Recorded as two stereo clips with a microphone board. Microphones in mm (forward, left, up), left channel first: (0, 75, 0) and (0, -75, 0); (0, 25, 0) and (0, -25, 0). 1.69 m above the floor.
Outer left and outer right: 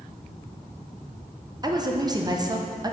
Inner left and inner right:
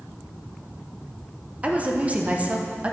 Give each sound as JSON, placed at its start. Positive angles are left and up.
{"t": 1.6, "sound": "a woman speaking", "side_deg": -25, "distance_m": 0.8}